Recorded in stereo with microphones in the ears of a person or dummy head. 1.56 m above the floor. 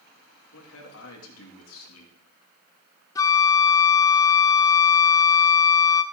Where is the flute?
15° left (ahead or behind), 0.6 m.